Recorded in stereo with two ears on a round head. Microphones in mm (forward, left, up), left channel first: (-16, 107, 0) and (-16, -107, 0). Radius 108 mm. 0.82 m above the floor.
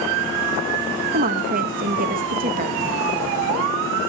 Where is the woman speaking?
35° right (ahead or behind), 0.9 m.